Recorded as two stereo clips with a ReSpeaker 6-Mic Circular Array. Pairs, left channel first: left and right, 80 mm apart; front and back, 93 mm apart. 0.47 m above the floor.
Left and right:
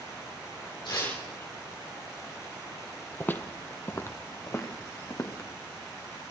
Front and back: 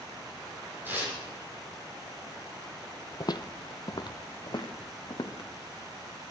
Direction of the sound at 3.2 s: 30° left.